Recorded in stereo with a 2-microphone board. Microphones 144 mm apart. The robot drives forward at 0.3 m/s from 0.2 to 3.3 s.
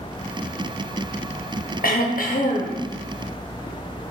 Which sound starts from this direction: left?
Throat clearing, at 1.8 s.